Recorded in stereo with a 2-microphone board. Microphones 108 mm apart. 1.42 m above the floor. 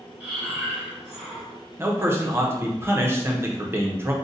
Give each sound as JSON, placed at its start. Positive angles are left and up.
{"t": 0.2, "sound": "breathing", "side_deg": -5, "distance_m": 1.0}
{"t": 1.8, "sound": "a man speaking", "side_deg": -20, "distance_m": 0.6}